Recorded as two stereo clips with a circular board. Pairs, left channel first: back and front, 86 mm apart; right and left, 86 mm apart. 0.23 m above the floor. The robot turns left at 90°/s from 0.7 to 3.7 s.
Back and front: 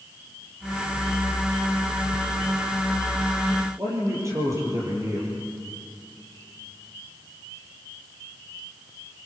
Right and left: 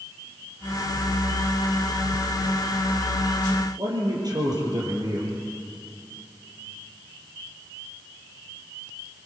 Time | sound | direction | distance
3.8 | a man speaking | 55° left | 7 m